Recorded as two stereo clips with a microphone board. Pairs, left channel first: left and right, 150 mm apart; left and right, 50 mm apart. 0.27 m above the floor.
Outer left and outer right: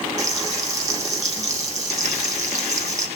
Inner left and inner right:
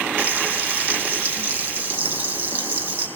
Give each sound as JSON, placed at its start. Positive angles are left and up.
{"t": 0.2, "sound": "frying", "side_deg": -50, "distance_m": 6.0}